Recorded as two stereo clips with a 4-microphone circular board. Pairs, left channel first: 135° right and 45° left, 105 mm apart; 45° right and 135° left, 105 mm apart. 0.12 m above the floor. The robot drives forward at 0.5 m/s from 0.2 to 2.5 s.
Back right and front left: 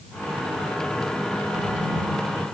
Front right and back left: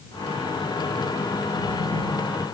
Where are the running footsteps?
No running footsteps in this recording.